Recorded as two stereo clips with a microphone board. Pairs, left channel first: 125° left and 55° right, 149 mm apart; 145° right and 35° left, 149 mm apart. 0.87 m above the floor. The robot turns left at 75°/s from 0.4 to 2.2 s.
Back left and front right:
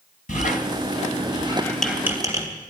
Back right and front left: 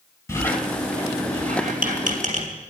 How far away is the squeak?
About 3 m.